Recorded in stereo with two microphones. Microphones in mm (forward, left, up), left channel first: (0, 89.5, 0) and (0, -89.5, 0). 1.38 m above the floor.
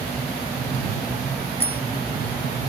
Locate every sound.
1.6 s a bicycle bell: 35° left (ahead or behind)